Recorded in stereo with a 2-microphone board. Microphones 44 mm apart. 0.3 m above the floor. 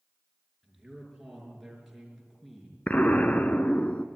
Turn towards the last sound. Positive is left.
turn(degrees=35)  # may be behind; listen again after turning